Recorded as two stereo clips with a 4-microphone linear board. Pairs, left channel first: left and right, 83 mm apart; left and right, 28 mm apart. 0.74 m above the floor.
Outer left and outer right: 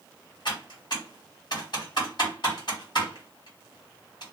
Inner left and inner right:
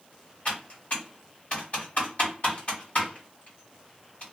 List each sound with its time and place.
0.5 s typing on a keyboard: 55° left (ahead or behind), 1.7 m